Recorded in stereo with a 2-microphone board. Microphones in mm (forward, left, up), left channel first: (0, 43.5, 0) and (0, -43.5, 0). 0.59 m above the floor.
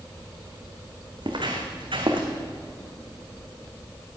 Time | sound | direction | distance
1.2 | footsteps | 65° right (ahead or behind) | 2 m